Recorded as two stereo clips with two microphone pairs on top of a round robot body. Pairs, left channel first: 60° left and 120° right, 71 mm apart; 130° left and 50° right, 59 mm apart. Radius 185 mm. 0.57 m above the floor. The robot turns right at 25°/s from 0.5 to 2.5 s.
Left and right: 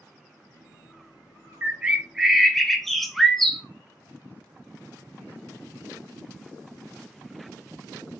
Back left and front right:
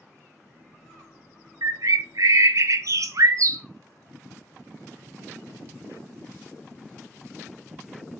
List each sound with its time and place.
1.6 s a bird: 50° right, 0.5 m; by 3.6 s 25° right, 0.5 m